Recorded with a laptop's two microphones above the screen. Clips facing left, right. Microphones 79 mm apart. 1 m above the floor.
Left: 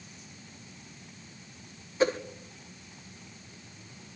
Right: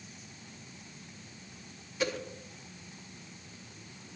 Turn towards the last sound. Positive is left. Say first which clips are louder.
# left 7 dB
turn(degrees=35)  # may be behind; listen again after turning